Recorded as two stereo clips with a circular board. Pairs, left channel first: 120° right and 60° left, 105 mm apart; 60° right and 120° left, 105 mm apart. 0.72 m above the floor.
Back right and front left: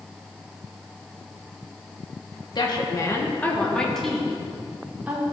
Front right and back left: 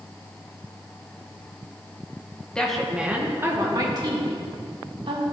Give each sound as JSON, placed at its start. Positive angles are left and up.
{"t": 2.5, "sound": "a woman speaking", "azimuth_deg": -140, "distance_m": 1.3}